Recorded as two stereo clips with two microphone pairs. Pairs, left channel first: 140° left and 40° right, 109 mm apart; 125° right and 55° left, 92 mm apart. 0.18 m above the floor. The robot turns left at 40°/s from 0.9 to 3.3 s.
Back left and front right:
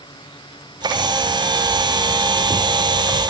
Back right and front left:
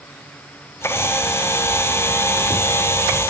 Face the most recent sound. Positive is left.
No sound to turn to.